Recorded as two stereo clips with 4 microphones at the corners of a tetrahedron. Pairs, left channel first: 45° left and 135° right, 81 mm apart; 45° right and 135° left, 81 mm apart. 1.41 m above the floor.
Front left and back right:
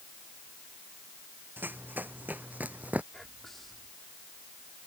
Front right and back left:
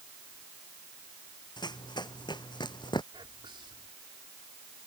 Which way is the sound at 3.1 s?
135° left.